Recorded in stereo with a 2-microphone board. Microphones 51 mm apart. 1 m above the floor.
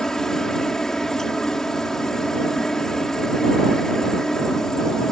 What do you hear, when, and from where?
0.0 s a helicopter: 10° left (ahead or behind)